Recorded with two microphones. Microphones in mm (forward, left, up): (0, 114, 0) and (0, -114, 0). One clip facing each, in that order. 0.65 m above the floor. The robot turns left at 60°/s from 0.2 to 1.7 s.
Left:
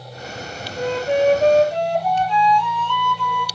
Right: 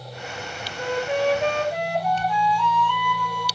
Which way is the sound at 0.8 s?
80° left.